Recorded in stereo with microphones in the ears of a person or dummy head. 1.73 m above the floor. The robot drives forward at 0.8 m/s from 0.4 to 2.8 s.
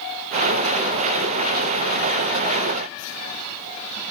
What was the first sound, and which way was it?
Only background noise.